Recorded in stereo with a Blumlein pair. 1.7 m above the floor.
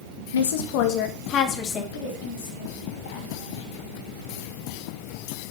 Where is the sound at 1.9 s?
55° left, 5.5 m.